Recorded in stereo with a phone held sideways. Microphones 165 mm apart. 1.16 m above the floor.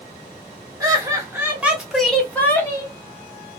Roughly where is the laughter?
Right.